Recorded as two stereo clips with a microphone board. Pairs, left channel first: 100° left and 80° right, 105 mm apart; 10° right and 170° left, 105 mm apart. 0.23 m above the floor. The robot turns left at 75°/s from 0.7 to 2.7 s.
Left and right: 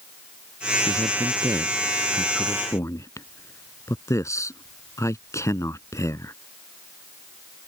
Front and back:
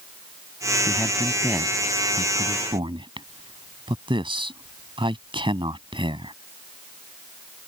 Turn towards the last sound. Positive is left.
turn(degrees=155)